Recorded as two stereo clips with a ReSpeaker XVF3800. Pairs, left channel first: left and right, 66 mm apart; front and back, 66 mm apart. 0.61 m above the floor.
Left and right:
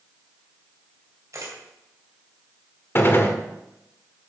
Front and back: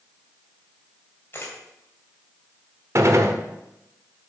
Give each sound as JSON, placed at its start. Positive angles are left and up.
{"t": 1.3, "sound": "a camera shutter", "azimuth_deg": -55, "distance_m": 3.0}
{"t": 3.0, "sound": "a gunshot", "azimuth_deg": 140, "distance_m": 1.1}